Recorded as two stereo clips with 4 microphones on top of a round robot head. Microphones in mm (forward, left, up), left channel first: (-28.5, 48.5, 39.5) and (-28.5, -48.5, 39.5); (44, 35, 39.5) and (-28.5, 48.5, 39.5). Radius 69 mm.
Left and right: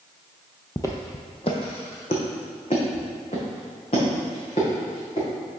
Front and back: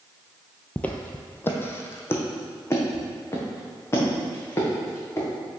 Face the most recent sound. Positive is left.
turn(degrees=45)